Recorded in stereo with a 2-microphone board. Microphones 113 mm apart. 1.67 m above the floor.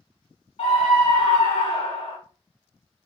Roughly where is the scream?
Left.